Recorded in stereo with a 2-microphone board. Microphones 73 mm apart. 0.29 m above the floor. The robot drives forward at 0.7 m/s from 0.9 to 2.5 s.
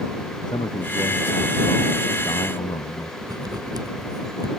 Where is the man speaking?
80° left.